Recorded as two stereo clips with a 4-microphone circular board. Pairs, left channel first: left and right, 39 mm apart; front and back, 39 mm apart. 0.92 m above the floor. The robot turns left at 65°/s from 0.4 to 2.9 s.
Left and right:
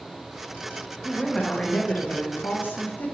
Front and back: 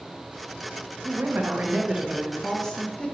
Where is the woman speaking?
175° right, 0.8 m; by 3.1 s 65° left, 0.8 m.